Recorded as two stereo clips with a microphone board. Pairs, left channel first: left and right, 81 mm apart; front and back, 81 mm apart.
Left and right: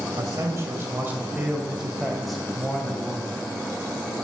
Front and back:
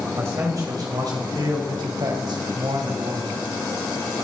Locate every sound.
0.1 s a man speaking: 130° right, 3 m; by 3.4 s 160° left, 4 m